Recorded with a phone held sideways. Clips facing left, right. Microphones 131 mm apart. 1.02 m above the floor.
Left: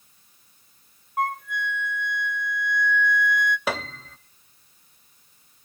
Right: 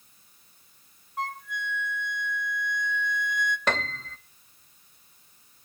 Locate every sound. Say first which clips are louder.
1.2 s a flute: left 7 dB; 55° left (ahead or behind), 0.7 m
3.7 s a piano: even; 5° left (ahead or behind), 0.6 m